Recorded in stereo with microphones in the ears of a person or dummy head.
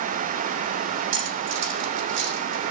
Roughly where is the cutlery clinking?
Right.